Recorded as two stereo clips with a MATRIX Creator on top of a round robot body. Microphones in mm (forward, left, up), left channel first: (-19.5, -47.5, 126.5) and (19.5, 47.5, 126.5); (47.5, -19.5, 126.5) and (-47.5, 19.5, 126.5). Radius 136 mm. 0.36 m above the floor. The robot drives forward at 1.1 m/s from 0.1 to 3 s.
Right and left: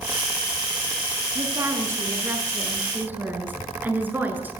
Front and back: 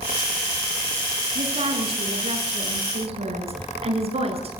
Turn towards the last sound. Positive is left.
turn(degrees=140)